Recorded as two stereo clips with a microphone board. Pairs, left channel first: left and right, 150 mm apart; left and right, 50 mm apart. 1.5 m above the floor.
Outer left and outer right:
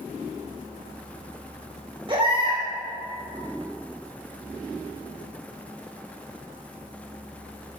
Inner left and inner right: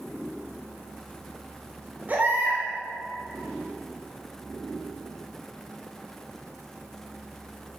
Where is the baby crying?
35° right (ahead or behind), 5.5 m.